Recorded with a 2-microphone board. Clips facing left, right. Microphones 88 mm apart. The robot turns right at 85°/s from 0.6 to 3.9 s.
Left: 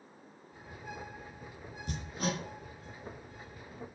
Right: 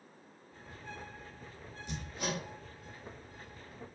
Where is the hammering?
50° left (ahead or behind), 1.2 m; by 2.4 s 35° left (ahead or behind), 1.2 m.